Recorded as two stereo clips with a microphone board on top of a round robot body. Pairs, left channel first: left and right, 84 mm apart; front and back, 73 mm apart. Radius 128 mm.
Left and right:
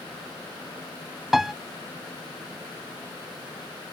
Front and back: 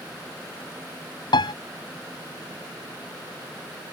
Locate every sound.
1.3 s a piano: 5° right